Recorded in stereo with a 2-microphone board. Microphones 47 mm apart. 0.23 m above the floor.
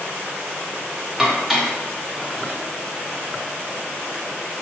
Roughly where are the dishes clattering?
Centre.